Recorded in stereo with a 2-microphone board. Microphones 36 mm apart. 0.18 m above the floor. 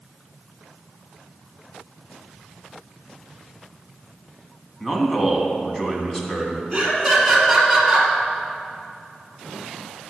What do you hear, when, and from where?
4.8 s a man speaking: 15° left (ahead or behind), 1.8 m
6.7 s laughter: centre (ahead or behind), 3 m